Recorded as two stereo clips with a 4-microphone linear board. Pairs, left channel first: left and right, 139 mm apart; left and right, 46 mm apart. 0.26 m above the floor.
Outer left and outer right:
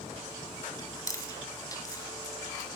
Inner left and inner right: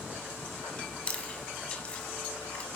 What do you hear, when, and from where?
0.8 s chewing: 25° left (ahead or behind), 1.5 m